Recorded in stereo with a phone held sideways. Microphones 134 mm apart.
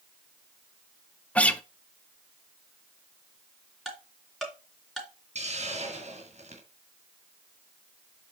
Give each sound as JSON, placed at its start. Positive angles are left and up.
{"t": 1.4, "sound": "a guitar", "side_deg": 10, "distance_m": 0.7}
{"t": 3.9, "sound": "ticking", "side_deg": 0, "distance_m": 3.0}
{"t": 5.3, "sound": "a hiss", "side_deg": -60, "distance_m": 2.5}